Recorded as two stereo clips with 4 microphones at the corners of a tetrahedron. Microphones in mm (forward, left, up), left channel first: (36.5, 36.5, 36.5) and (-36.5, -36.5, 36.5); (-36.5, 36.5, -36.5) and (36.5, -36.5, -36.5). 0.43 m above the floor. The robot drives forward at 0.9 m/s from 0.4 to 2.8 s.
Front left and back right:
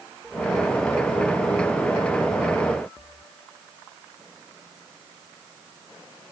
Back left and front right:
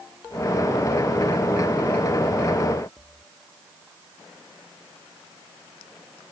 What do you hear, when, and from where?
Only background noise.